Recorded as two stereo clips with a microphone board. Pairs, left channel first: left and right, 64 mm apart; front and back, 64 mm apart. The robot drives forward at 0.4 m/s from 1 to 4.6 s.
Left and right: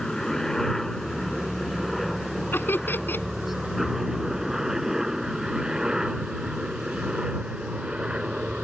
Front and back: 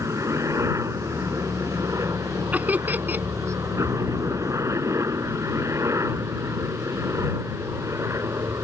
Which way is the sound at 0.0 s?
175° left.